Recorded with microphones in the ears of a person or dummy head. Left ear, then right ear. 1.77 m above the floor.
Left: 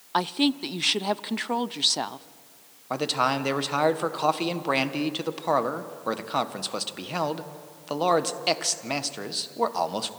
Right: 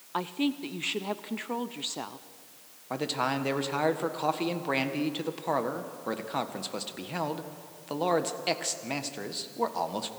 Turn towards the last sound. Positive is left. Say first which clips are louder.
# left 5 dB
turn(degrees=20)  # may be behind; listen again after turning